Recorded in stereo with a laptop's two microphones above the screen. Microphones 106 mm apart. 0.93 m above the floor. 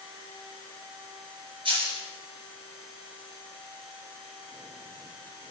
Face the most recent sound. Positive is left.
turn(degrees=-50)  # may be behind; listen again after turning